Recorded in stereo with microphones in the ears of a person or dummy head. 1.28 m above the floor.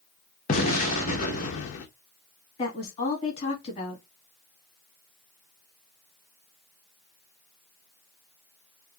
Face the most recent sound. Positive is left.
turn(degrees=30)  # may be behind; listen again after turning